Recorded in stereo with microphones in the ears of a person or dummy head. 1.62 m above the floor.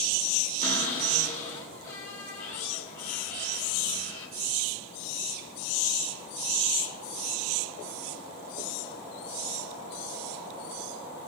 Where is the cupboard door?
45° left (ahead or behind), 3.5 m.